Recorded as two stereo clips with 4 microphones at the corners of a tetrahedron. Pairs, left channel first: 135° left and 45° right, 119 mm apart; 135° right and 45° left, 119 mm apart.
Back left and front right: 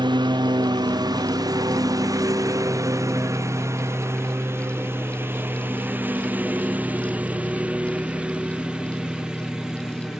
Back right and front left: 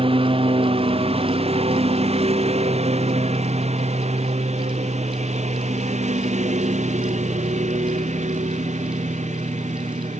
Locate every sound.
0.0 s a lawn mower: 5° left; by 10.2 s 40° left